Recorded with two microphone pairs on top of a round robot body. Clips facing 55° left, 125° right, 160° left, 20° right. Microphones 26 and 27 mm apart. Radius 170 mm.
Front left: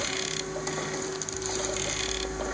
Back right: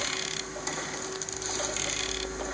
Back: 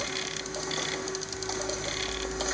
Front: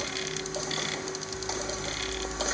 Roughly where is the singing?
I don't hear singing.